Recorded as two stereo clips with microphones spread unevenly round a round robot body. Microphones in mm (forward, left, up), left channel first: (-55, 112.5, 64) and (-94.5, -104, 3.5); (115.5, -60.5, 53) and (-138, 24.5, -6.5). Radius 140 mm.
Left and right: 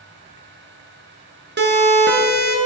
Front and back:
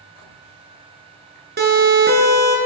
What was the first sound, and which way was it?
A siren, 140° right.